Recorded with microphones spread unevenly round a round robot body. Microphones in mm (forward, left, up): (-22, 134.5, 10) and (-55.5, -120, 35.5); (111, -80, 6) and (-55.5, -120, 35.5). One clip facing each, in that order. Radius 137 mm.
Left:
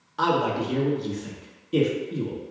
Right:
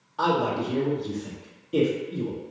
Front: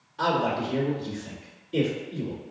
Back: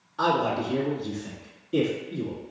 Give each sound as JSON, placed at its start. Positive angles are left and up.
{"t": 0.2, "sound": "a man speaking", "azimuth_deg": 140, "distance_m": 1.2}